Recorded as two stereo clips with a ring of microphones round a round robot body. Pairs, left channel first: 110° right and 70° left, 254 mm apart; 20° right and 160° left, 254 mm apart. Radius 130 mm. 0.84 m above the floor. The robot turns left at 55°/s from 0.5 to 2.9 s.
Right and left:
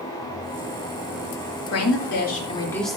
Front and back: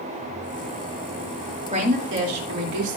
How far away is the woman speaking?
About 3 m.